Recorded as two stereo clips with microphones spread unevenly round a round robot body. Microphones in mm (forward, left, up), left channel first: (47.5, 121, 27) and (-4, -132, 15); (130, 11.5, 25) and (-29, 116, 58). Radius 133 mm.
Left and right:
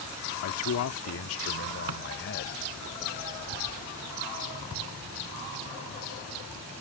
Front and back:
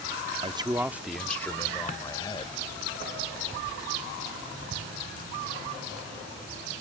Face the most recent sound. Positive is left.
turn(degrees=-95)